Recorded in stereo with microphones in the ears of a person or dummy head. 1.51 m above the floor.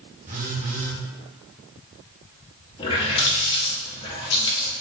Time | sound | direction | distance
0.3 | a phone buzzing | 45° right (ahead or behind) | 1.5 m
2.8 | a running tap | 25° left (ahead or behind) | 1.6 m